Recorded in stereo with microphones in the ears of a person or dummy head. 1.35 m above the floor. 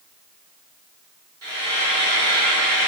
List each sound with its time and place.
1.4 s frying: 20° right (ahead or behind), 1.4 m